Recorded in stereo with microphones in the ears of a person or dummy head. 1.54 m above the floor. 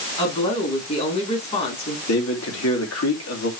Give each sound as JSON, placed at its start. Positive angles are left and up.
{"t": 0.2, "sound": "a woman speaking", "side_deg": 30, "distance_m": 4.5}
{"t": 2.1, "sound": "a man speaking", "side_deg": 80, "distance_m": 3.0}